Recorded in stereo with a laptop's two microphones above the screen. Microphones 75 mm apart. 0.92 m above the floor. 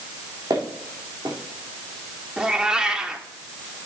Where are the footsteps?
65° right (ahead or behind), 2.5 m.